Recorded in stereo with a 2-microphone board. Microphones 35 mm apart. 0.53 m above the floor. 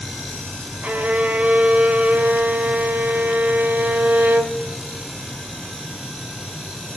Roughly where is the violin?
Right.